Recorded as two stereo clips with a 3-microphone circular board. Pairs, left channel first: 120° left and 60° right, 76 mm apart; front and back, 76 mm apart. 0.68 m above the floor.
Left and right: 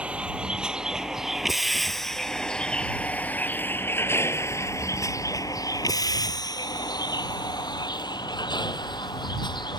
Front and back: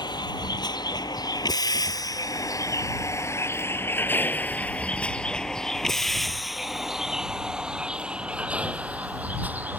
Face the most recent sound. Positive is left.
turn(degrees=115)